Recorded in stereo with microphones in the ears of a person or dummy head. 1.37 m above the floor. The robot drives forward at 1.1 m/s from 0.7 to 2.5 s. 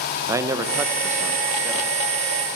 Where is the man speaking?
10° right (ahead or behind), 0.6 m; by 1.9 s 5° right (ahead or behind), 2.0 m.